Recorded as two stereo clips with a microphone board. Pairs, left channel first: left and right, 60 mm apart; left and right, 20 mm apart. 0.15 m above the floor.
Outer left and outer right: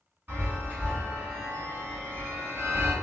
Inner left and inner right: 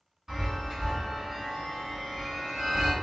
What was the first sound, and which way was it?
A chime, 30° right (ahead or behind).